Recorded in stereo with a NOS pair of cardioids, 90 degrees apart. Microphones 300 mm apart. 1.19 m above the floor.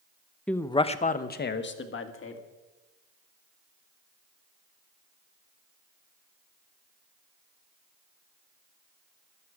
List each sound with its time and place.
0.5 s a man speaking: 5° left, 0.8 m; by 2.4 s 45° left, 2.0 m